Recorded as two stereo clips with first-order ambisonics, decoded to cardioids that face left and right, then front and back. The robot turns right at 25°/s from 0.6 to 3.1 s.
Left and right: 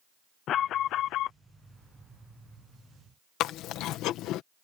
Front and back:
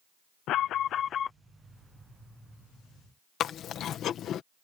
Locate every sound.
0.5 s an alarm: 40° left; by 1.4 s 60° left
3.4 s chewing: 50° left